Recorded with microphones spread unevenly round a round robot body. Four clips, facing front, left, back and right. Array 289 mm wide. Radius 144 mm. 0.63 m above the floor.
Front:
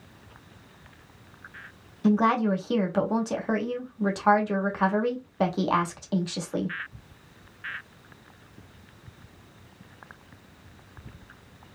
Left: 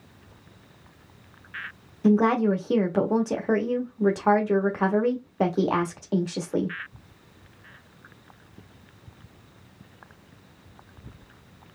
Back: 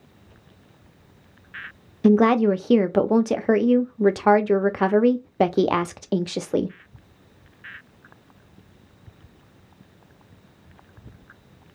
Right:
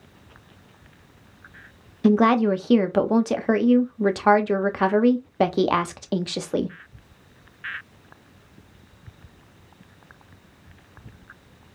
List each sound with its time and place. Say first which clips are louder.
2.0 s a woman speaking: right 3 dB, back 6 dB; 160° right, 0.7 m